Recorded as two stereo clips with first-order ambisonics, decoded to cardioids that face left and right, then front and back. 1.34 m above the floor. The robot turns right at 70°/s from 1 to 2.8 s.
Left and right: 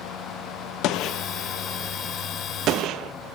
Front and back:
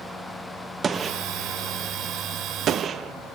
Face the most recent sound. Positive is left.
turn(degrees=-125)